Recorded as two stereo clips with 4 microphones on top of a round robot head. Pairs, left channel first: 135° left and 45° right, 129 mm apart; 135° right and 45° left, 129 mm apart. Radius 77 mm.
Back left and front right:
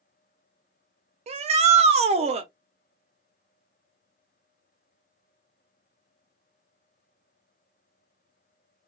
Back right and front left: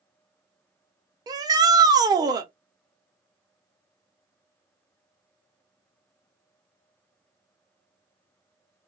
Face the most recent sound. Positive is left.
turn(degrees=-15)